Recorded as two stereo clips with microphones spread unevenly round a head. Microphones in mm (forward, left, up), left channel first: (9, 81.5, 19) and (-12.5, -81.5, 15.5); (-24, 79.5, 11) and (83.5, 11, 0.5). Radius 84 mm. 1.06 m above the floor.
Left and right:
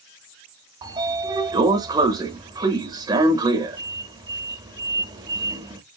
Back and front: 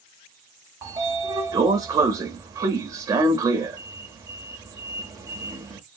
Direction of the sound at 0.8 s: 65° right.